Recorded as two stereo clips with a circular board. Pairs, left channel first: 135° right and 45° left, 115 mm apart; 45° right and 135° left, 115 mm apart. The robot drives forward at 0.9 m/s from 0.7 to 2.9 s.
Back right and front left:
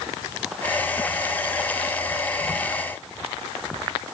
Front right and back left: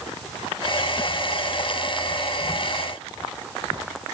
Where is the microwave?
No microwave in this recording.